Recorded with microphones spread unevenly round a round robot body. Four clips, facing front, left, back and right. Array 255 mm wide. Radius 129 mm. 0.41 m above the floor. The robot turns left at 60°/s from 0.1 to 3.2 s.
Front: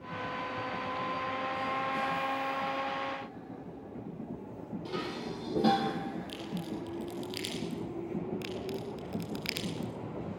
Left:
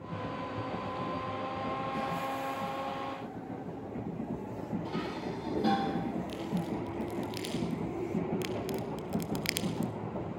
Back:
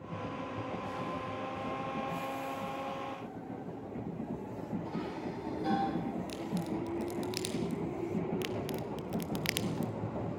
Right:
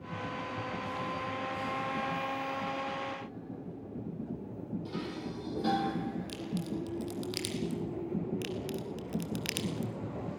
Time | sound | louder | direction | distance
4.8 | dishes clattering | left 3 dB, front 1 dB | 5° left | 9.5 m
6.3 | a crack | left 2 dB, back 2 dB | 150° right | 3 m
8.4 | a crack | left 2 dB, back 1 dB | 160° left | 1.0 m